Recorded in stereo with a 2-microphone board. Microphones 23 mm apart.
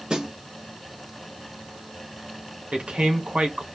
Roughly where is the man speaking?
Right.